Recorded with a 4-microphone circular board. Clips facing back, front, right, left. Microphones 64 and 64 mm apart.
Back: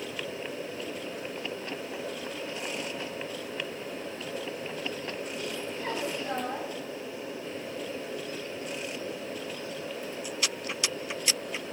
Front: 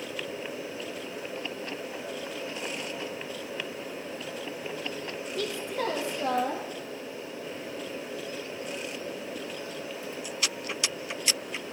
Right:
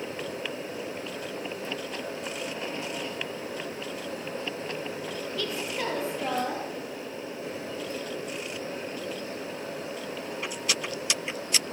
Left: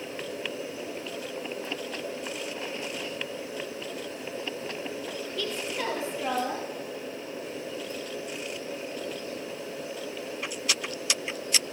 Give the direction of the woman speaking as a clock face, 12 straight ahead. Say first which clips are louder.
Front 4 dB, even; 12 o'clock.